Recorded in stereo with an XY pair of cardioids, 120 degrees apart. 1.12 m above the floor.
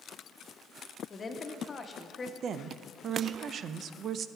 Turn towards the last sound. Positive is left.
turn(degrees=-50)